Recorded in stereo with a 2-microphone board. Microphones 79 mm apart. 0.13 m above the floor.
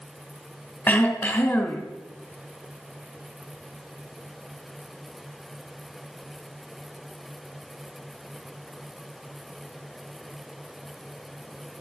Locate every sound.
0.9 s throat clearing: 25° left (ahead or behind), 1.8 m